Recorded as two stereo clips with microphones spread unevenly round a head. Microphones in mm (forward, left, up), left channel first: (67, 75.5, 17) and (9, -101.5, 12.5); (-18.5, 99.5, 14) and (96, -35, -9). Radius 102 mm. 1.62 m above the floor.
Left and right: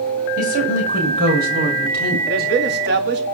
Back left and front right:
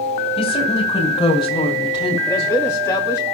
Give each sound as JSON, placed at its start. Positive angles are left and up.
{"t": 0.4, "sound": "a woman speaking", "azimuth_deg": -160, "distance_m": 6.5}
{"t": 2.3, "sound": "a man speaking", "azimuth_deg": -150, "distance_m": 4.0}